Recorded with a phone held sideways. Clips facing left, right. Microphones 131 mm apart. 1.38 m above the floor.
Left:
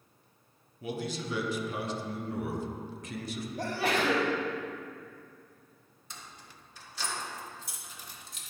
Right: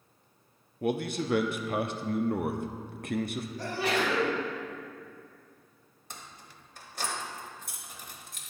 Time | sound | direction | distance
0.8 | a man speaking | 60° right (ahead or behind) | 0.6 m
3.6 | a sneeze | 50° left (ahead or behind) | 2.5 m
6.1 | keys jangling | 50° right (ahead or behind) | 1.0 m